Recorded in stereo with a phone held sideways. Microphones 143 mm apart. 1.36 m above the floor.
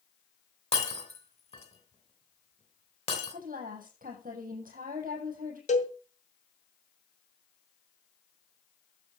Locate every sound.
0.7 s breaking glass: 50° left (ahead or behind), 3 m
3.3 s a woman speaking: 80° right, 8 m
5.7 s a cowbell: 60° left (ahead or behind), 2 m